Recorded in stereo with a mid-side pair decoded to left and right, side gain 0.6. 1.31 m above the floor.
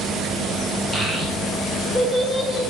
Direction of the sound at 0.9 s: 20° right.